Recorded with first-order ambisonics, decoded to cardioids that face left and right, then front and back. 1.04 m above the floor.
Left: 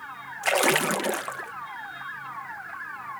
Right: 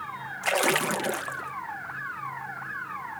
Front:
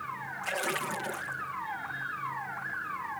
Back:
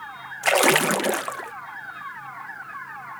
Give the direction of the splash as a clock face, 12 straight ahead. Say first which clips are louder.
Left 2 dB, back 15 dB; 6 o'clock.